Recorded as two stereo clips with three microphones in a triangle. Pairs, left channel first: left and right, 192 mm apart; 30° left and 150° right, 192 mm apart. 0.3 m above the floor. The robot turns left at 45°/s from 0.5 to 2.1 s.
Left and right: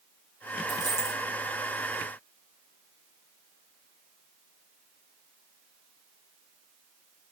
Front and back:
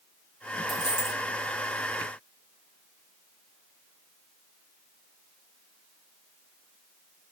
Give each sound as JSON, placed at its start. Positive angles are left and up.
{"t": 0.7, "sound": "a dropped coin", "azimuth_deg": 175, "distance_m": 4.5}